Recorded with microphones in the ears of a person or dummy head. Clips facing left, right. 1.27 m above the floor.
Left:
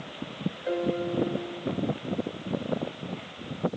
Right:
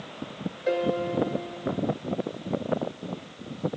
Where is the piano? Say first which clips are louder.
Right 3 dB; 35° right (ahead or behind), 0.6 m.